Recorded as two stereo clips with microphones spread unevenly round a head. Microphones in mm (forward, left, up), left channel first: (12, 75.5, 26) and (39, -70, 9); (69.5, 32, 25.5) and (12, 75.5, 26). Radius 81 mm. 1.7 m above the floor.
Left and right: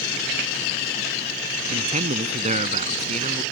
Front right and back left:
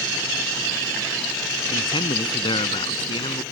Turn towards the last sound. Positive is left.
turn(degrees=-30)